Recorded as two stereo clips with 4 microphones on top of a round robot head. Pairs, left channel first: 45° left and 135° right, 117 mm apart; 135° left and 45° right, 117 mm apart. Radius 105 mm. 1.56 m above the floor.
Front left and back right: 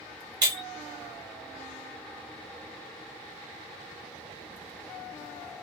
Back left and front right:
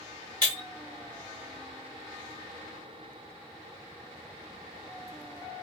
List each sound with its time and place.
0.4 s breaking glass: 95° right, 0.9 m